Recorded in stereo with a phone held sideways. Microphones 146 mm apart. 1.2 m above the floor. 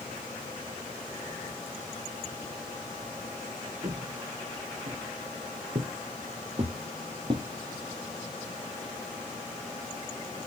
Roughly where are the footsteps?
Right.